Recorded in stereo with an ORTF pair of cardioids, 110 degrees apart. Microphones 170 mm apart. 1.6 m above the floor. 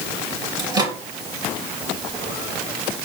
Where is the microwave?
25° right, 3 m.